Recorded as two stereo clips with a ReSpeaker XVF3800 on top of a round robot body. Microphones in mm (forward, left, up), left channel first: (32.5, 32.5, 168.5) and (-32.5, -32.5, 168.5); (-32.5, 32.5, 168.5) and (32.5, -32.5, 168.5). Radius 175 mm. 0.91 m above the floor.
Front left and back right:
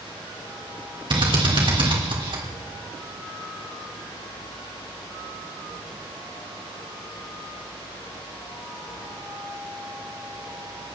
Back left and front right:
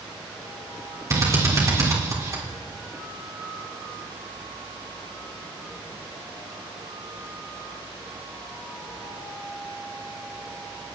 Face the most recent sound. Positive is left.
turn(degrees=-105)